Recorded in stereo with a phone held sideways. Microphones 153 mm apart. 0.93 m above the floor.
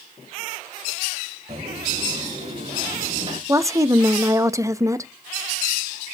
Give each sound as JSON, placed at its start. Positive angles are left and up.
{"t": 1.5, "sound": "footsteps", "side_deg": -40, "distance_m": 7.5}
{"t": 3.5, "sound": "a woman speaking", "side_deg": -20, "distance_m": 0.7}